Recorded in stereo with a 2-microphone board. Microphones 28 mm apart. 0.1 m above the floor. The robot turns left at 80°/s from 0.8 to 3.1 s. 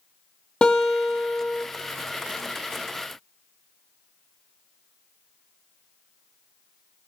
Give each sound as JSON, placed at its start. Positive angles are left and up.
{"t": 0.6, "sound": "a guitar", "azimuth_deg": 140, "distance_m": 3.5}